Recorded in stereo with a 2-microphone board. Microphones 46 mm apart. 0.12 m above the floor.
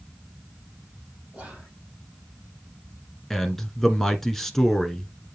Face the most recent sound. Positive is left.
turn(degrees=10)  # may be behind; listen again after turning